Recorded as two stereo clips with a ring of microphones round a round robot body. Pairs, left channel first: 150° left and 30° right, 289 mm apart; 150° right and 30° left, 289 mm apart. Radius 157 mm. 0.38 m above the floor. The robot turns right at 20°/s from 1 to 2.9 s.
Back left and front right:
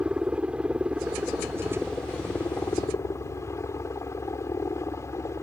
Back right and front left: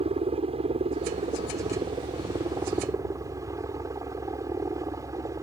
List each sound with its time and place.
0.0 s a helicopter: 50° left; by 5.4 s 90° left